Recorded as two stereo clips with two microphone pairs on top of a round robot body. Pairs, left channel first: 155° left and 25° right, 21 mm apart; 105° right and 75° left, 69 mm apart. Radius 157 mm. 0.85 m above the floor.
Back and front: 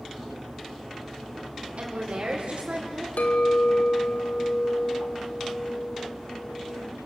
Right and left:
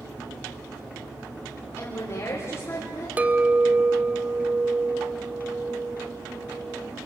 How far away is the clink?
About 0.7 m.